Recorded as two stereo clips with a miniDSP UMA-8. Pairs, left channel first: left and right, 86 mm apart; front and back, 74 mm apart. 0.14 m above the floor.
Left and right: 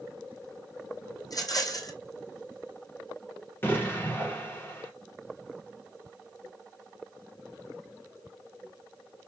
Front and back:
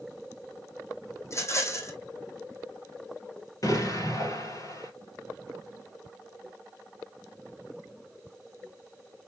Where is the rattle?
45° left, 2 m.